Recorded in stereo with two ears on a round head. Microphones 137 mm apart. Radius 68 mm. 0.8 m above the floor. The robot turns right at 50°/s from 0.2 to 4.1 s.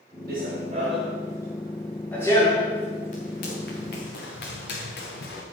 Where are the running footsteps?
65° right (ahead or behind), 5.5 m; by 5.4 s 75° left (ahead or behind), 4.5 m.